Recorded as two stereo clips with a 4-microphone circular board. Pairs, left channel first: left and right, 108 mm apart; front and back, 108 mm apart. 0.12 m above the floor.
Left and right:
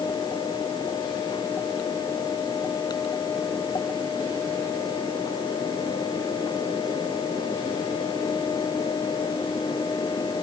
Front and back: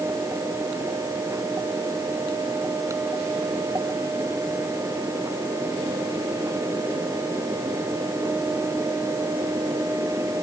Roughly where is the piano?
I don't hear a piano.